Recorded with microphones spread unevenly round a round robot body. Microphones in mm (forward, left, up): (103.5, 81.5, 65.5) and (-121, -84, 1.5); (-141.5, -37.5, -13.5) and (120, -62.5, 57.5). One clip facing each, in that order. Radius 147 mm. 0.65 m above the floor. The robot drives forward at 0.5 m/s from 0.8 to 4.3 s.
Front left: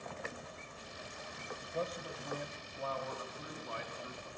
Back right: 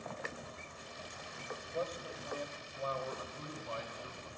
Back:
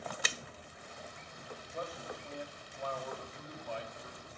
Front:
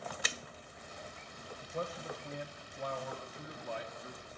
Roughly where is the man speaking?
Ahead right.